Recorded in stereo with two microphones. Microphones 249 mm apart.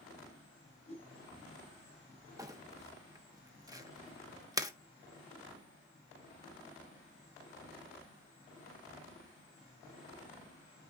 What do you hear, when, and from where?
0.9 s a whoosh: 25° left (ahead or behind), 9 m
2.4 s crumpling: 15° right (ahead or behind), 1.1 m